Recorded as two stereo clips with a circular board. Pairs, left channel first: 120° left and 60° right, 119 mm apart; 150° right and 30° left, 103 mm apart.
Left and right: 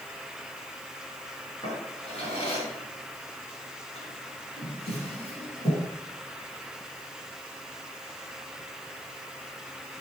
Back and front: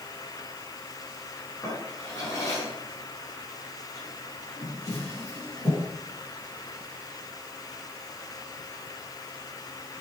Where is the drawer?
155° left, 5.5 m.